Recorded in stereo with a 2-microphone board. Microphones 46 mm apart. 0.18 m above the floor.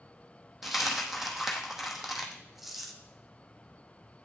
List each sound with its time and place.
0.6 s a dropped coin: 5° right (ahead or behind), 0.8 m